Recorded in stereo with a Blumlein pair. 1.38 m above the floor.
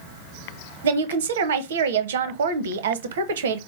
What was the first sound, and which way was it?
A woman speaking, 60° right.